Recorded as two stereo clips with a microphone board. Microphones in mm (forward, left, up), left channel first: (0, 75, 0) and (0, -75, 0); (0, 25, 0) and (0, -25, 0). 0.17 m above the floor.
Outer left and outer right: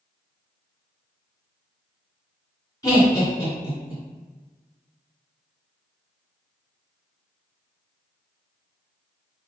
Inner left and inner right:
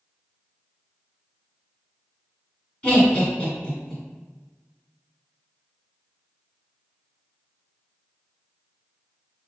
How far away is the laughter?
About 2.0 m.